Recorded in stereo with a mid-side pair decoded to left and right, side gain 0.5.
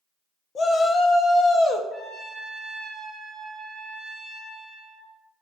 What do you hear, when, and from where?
0.6 s a shout: 40° left, 1.2 m
1.9 s a trumpet: 15° left, 3 m